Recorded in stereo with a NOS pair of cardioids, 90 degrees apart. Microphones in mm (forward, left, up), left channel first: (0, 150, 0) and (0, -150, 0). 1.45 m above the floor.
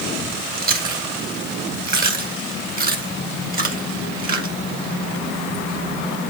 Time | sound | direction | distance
0.6 | chewing | 30° right | 1.8 m